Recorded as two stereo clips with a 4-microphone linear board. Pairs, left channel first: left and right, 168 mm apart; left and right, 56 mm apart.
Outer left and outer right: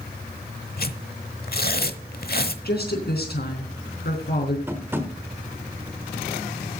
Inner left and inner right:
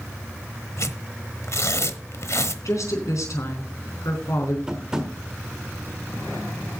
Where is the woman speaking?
75° left (ahead or behind), 3.5 m.